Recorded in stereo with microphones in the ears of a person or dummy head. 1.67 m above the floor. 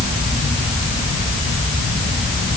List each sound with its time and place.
Only background noise.